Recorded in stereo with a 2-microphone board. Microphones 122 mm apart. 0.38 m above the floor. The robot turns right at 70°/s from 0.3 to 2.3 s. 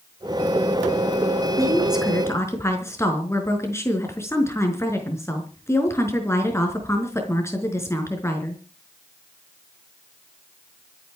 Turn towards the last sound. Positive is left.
turn(degrees=20)